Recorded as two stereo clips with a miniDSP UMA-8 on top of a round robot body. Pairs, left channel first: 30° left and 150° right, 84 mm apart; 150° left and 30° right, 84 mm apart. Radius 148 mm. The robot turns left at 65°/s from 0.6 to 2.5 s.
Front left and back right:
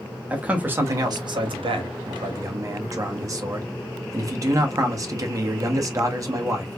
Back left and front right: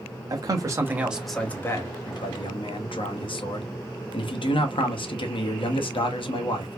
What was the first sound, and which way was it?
A man speaking, 75° right.